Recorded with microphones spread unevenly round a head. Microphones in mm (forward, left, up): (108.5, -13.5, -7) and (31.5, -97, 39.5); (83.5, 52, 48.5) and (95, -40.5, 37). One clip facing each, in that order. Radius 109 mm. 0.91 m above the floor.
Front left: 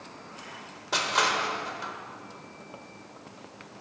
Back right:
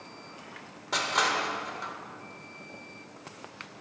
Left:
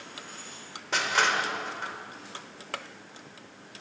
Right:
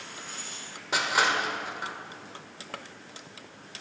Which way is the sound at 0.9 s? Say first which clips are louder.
Front left 1 dB, even; 15° right.